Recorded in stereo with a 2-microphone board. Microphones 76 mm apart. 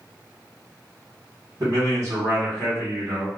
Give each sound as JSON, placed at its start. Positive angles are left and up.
{"t": 1.6, "sound": "a man speaking", "side_deg": -40, "distance_m": 1.6}